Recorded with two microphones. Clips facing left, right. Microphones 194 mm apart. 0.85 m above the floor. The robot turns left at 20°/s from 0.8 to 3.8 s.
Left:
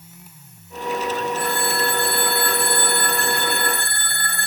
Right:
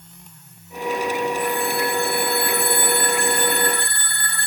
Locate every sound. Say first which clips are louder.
1.4 s a phone ringing: right 1 dB; 95° left, 1.6 m; by 4.5 s 50° left, 1.6 m